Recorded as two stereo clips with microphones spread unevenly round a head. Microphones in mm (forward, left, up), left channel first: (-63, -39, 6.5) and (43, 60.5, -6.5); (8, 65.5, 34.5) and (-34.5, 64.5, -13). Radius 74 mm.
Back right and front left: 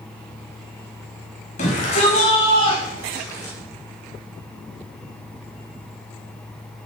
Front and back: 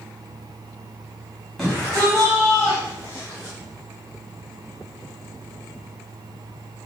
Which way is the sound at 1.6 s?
90° right.